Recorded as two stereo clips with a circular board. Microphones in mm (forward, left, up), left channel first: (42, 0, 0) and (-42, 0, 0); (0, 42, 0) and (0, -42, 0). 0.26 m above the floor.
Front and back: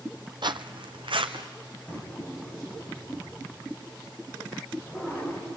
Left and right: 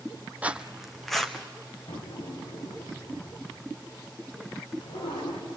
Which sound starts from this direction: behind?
Footsteps, at 0.4 s.